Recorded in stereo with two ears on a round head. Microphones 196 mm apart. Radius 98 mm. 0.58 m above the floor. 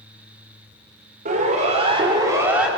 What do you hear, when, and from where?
1.2 s a siren: 40° right (ahead or behind), 2.5 m; by 2.7 s 5° right (ahead or behind), 1.9 m